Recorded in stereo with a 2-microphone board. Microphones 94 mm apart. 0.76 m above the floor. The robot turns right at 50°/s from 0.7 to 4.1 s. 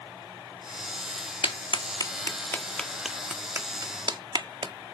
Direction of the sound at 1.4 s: 65° left (ahead or behind).